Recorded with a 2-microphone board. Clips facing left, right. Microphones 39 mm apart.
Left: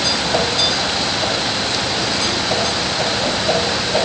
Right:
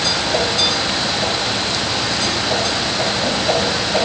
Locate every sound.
Only background noise.